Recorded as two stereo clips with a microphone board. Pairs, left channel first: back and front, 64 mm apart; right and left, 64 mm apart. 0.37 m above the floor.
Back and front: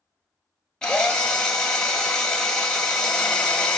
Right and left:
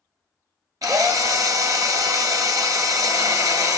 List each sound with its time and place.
0.8 s a drill: 100° left, 1.0 m